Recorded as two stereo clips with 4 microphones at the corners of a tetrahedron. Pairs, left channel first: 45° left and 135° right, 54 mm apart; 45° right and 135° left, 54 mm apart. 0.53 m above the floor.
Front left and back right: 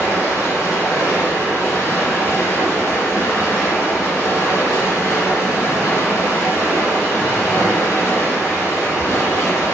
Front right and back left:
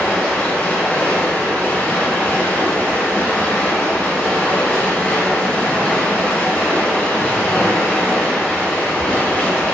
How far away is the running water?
About 0.8 m.